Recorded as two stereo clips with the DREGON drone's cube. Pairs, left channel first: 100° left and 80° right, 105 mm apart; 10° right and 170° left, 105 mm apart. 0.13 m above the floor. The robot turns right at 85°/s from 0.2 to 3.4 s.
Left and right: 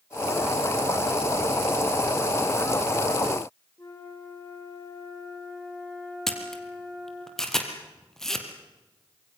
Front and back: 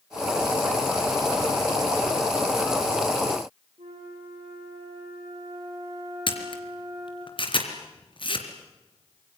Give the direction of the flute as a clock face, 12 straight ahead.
7 o'clock.